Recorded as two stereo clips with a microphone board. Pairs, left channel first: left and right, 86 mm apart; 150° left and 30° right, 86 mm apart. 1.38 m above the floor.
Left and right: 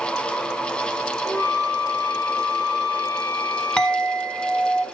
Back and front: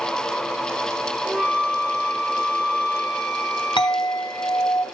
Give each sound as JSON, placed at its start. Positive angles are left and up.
{"t": 1.2, "sound": "a flute", "azimuth_deg": 45, "distance_m": 2.0}
{"t": 3.8, "sound": "a clink", "azimuth_deg": 170, "distance_m": 1.4}